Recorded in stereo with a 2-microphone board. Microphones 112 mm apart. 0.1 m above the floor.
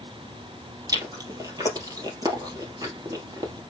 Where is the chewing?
30° right (ahead or behind), 2.5 m.